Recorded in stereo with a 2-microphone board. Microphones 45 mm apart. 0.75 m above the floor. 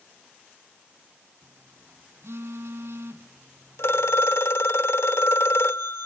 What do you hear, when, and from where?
1.4 s a phone buzzing: 70° right (ahead or behind), 1.9 m
3.8 s a phone ringing: 75° left (ahead or behind), 1.3 m